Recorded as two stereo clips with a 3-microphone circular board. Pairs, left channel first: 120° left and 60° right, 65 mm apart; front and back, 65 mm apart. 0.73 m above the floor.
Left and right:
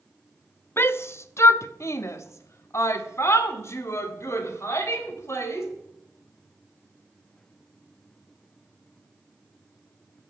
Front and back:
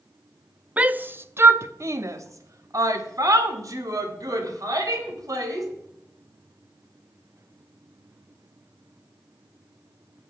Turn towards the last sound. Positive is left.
turn(degrees=165)